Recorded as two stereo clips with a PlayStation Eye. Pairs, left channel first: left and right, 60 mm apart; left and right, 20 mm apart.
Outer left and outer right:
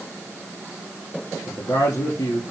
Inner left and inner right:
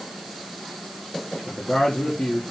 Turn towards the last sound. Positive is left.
turn(degrees=65)  # may be behind; listen again after turning